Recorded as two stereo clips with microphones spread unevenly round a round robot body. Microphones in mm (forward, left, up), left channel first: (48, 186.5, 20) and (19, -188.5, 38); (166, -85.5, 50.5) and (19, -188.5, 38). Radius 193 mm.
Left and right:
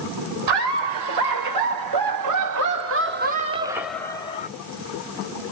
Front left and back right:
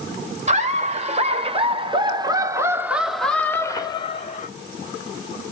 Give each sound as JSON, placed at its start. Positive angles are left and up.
{"t": 0.5, "sound": "laughter", "azimuth_deg": -100, "distance_m": 2.0}